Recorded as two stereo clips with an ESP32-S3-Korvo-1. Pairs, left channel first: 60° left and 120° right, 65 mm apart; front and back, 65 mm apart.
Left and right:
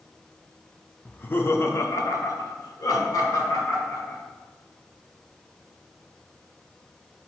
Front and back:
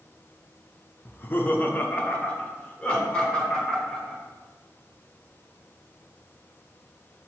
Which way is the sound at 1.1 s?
15° left.